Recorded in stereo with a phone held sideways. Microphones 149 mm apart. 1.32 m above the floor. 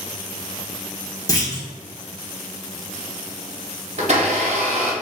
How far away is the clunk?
About 0.7 m.